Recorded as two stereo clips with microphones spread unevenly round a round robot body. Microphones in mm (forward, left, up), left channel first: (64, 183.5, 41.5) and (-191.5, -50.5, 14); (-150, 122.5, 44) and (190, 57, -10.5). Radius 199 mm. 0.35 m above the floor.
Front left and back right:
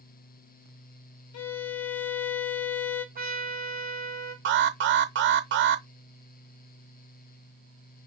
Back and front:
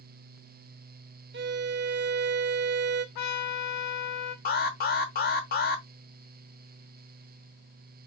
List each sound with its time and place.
1.3 s a violin: 15° left, 0.6 m
3.1 s a trumpet: 160° left, 1.8 m
4.5 s an alarm: 130° right, 0.7 m